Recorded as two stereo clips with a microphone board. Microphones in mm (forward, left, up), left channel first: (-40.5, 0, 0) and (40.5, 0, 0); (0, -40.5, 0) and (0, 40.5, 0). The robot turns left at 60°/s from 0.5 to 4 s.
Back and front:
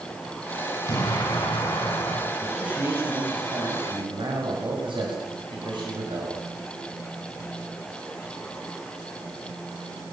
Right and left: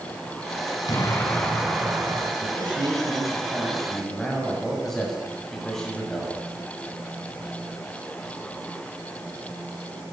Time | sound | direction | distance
0.9 | an explosion | 135° right | 5.5 m
2.4 | a man speaking | 90° left | 7 m